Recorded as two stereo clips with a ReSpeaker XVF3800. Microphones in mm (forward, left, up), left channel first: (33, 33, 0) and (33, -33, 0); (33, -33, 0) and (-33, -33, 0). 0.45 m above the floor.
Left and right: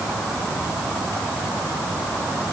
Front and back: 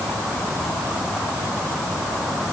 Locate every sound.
Only background noise.